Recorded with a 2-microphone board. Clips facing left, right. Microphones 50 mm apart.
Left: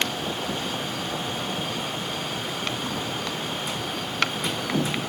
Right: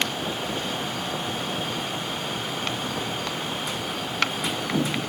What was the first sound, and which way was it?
Only background noise.